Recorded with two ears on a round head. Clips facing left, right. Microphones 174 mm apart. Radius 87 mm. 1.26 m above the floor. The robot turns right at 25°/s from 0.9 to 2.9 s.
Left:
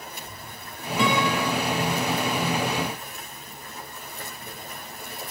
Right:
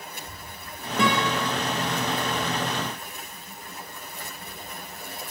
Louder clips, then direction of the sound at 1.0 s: Left 1 dB; 35° right (ahead or behind).